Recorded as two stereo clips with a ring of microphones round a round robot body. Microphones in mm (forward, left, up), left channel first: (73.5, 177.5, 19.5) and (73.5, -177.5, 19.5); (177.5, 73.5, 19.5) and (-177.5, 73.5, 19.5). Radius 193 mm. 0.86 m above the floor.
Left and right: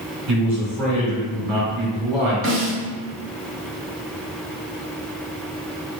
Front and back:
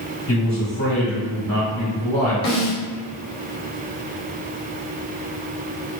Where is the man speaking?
70° right, 1.9 m.